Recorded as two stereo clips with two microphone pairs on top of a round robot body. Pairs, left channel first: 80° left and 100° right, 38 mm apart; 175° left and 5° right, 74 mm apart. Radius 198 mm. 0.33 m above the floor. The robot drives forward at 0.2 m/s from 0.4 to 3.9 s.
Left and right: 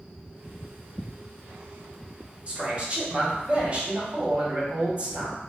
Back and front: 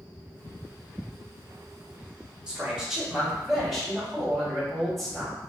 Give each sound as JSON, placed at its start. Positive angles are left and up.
{"t": 2.5, "sound": "a man speaking", "azimuth_deg": -80, "distance_m": 1.3}